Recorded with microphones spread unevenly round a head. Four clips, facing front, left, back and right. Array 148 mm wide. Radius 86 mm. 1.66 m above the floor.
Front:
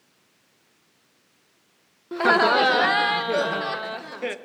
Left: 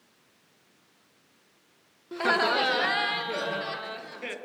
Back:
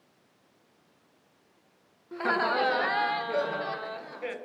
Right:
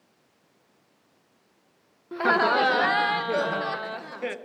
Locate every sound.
2.1 s laughter: straight ahead, 0.8 m; by 4.4 s 20° right, 2 m